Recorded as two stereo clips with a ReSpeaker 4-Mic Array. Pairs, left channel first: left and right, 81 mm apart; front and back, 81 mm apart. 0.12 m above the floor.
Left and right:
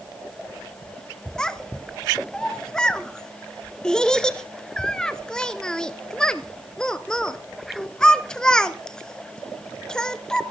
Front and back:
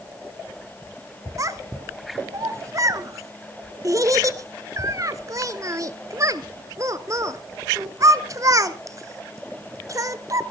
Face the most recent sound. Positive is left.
turn(degrees=165)